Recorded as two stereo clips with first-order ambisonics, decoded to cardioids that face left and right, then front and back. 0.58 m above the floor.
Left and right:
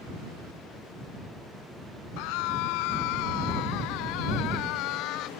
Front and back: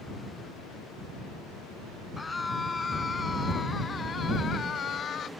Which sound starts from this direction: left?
A scream, at 2.2 s.